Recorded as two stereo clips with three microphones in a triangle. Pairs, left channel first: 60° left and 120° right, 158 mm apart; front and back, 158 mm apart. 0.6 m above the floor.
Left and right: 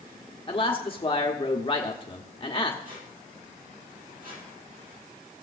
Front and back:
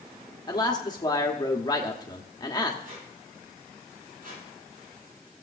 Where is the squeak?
150° right, 6 m.